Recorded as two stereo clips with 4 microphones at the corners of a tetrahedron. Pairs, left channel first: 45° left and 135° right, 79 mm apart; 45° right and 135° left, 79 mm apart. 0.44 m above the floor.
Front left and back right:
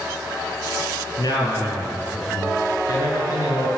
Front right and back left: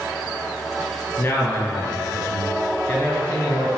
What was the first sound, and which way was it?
A man speaking, 10° left.